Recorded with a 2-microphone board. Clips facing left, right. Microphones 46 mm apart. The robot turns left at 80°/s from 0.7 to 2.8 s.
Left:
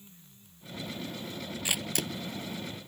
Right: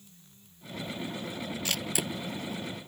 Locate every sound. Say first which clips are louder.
1.6 s a camera shutter: left 1 dB; 15° left (ahead or behind); by 2.1 s 20° right (ahead or behind)